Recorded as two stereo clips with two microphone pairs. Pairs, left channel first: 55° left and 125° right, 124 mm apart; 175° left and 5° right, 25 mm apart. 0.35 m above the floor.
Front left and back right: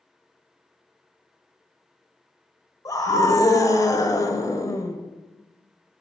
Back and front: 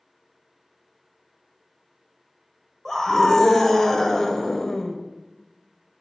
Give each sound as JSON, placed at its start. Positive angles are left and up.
{"t": 2.9, "sound": "a scream", "azimuth_deg": 105, "distance_m": 1.2}